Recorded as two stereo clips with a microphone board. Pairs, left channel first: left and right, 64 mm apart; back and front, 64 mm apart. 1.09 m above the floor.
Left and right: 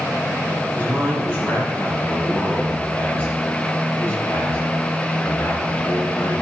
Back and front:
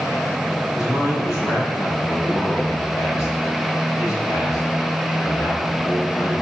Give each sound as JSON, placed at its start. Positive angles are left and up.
{"t": 0.8, "sound": "a man speaking", "azimuth_deg": 155, "distance_m": 6.0}